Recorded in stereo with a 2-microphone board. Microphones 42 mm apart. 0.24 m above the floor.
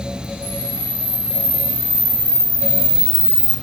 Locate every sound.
0.4 s a camera shutter: 40° right (ahead or behind), 3 m